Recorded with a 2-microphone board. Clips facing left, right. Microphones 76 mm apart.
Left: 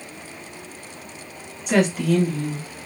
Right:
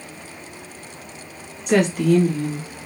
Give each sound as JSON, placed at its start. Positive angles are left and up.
{"t": 1.7, "sound": "a woman speaking", "side_deg": 0, "distance_m": 1.2}